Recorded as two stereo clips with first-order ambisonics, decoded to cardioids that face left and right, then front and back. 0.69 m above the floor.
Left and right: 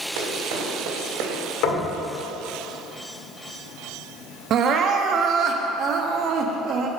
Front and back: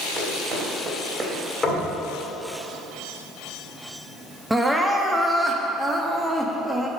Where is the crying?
95° right, 0.7 m.